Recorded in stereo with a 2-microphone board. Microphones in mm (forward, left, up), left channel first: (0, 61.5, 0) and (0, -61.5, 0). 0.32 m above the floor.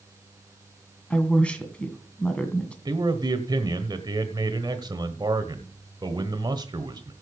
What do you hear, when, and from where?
1.1 s a woman speaking: 10° left (ahead or behind), 2 m
2.9 s a man speaking: 35° right (ahead or behind), 1.2 m